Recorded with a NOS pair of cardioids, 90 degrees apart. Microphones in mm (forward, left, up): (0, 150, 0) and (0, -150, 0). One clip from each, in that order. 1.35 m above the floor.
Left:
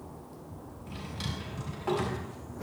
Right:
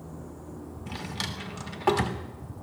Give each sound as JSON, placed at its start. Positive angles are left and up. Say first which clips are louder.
{"t": 0.9, "sound": "a drawer", "louder": "right 5 dB", "azimuth_deg": -70, "distance_m": 1.6}